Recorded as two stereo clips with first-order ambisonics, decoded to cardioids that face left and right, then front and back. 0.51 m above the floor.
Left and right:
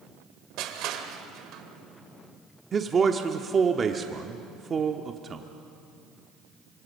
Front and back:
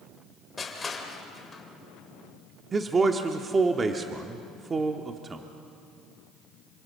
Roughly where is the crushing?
Right.